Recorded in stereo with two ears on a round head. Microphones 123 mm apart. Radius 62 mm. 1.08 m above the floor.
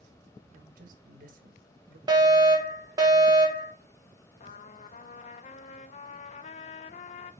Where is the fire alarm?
30° right (ahead or behind), 1.5 m.